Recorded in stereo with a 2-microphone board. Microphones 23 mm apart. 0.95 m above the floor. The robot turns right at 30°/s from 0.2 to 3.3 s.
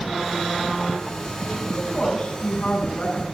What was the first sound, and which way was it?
A woman speaking, 30° left.